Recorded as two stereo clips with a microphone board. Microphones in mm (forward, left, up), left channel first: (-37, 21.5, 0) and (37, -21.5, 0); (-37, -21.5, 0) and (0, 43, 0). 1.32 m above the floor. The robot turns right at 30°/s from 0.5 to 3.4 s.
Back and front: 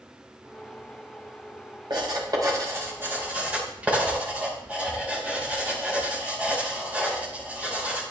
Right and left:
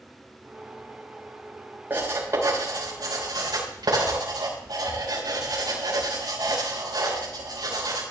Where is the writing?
5° right, 4.5 m; by 8.0 s 40° left, 4.5 m.